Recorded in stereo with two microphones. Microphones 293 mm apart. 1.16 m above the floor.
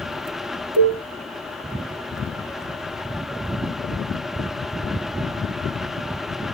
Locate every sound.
0.8 s a cowbell: 65° right (ahead or behind), 5.5 m